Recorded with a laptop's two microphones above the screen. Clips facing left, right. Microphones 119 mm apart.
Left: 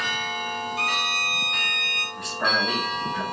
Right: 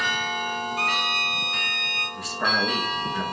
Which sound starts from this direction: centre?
A man speaking, at 2.2 s.